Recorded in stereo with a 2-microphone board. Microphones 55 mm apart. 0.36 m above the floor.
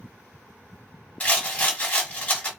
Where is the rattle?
25° left (ahead or behind), 1.8 m.